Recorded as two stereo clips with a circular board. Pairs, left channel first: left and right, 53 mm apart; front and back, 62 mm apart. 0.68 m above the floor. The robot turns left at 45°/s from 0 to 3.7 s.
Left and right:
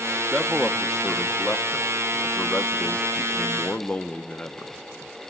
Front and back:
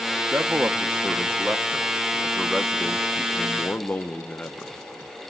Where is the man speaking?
165° right, 0.6 m; by 4.7 s 45° left, 0.6 m.